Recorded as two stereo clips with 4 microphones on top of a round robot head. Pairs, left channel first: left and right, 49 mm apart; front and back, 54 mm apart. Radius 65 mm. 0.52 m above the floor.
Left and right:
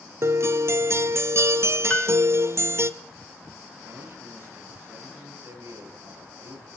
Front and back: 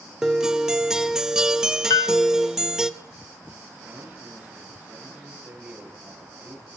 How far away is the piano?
About 0.7 m.